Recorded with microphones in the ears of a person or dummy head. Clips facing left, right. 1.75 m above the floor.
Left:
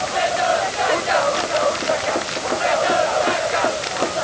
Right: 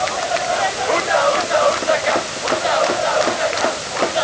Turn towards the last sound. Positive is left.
No sound to turn to.